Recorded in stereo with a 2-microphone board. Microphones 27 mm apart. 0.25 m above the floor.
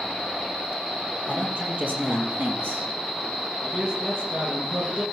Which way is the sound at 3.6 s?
35° right (ahead or behind).